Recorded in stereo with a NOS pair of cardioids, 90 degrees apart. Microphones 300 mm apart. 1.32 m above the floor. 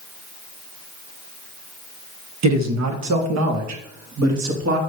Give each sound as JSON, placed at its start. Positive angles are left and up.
{"t": 2.4, "sound": "a man speaking", "azimuth_deg": -70, "distance_m": 1.1}